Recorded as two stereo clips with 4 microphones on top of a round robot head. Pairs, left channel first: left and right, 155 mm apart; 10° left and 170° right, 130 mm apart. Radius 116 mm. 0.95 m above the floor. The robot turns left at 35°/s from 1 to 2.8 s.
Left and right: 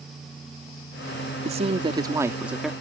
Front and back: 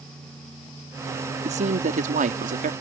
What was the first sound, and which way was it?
A man speaking, 135° right.